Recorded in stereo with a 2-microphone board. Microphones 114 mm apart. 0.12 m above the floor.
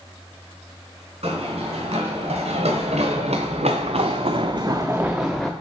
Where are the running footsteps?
65° right (ahead or behind), 1.9 m; by 5.5 s 5° left (ahead or behind), 0.7 m.